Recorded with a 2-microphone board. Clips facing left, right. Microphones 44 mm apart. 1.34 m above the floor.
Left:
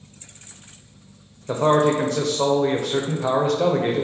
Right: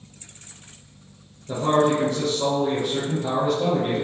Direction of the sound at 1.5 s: 85° left.